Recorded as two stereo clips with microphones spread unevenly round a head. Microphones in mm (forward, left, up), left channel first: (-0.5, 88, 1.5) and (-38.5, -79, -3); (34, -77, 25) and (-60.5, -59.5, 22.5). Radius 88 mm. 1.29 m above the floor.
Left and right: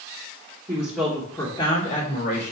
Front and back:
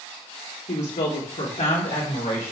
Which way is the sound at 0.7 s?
30° right.